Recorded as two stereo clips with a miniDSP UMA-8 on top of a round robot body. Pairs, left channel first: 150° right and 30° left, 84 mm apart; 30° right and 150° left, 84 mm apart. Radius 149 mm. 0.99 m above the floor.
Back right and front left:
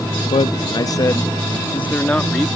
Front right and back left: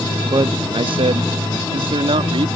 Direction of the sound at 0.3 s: 165° right.